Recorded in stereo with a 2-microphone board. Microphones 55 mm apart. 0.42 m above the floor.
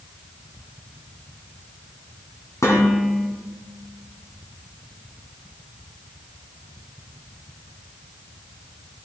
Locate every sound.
2.6 s dishes clattering: 70° left (ahead or behind), 2.5 m